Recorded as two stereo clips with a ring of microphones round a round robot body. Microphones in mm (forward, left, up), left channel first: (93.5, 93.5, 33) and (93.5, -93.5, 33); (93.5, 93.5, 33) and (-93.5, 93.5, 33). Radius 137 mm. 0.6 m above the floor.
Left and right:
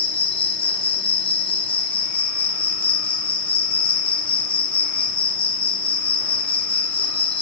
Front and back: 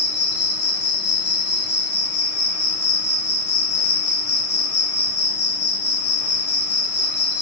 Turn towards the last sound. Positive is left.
turn(degrees=30)